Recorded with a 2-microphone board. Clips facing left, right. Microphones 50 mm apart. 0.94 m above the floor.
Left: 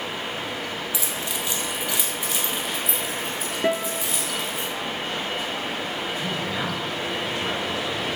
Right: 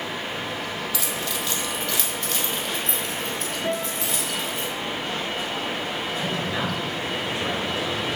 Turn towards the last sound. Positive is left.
turn(degrees=-15)  # may be behind; listen again after turning